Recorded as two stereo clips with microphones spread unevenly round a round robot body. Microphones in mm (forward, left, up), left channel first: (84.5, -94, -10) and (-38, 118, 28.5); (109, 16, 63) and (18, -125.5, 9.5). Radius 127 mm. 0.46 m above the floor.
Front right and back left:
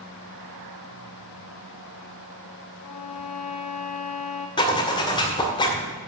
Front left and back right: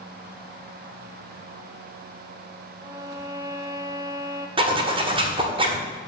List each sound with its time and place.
2.8 s a violin: 55° right, 1.6 m
4.6 s a zipper: 115° right, 1.9 m